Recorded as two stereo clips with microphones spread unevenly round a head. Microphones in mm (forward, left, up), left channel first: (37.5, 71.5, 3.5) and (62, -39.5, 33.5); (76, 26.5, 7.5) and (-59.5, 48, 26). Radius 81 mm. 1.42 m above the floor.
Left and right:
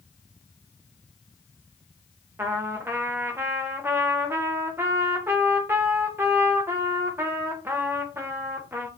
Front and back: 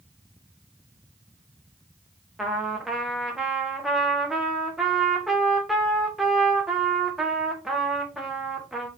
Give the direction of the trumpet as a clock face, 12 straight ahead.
4 o'clock.